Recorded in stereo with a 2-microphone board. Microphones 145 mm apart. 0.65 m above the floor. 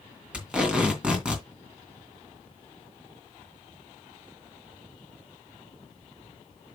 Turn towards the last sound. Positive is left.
turn(degrees=-5)  # may be behind; listen again after turning